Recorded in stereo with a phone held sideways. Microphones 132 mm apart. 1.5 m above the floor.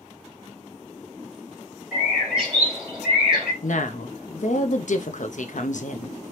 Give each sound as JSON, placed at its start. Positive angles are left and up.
{"t": 1.9, "sound": "a bird", "side_deg": -5, "distance_m": 1.6}
{"t": 3.6, "sound": "a woman speaking", "side_deg": 70, "distance_m": 0.6}